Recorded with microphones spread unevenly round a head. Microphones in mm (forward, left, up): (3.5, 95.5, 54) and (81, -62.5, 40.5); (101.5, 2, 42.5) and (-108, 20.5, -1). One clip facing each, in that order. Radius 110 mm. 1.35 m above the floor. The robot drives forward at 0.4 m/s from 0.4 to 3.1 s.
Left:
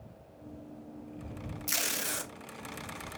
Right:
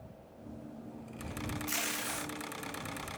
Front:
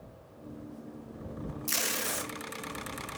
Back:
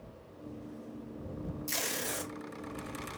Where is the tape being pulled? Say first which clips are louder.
Even, front 1 dB; 75° left, 1.5 m; by 2.3 s 85° left, 1.4 m.